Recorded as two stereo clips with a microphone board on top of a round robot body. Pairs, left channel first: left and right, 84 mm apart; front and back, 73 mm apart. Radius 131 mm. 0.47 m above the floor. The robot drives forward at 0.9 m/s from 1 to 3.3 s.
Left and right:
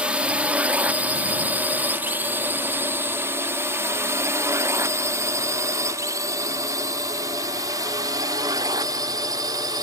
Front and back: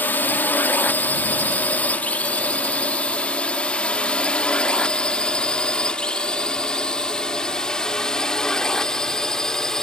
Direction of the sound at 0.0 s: 30° right.